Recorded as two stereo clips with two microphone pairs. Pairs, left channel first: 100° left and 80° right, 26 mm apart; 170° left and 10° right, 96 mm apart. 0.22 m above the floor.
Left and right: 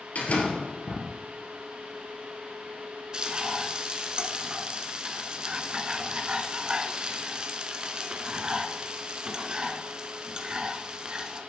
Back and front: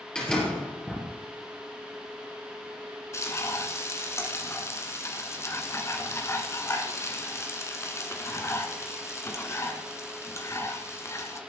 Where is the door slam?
90° left, 3.5 m.